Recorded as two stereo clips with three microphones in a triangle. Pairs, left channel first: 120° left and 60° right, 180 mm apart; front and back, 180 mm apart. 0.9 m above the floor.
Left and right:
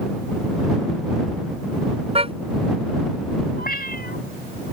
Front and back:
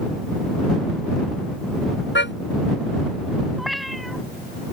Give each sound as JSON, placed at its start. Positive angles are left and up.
{"t": 2.1, "sound": "a car horn", "azimuth_deg": 0}
{"t": 3.6, "sound": "a cat meowing", "azimuth_deg": 90}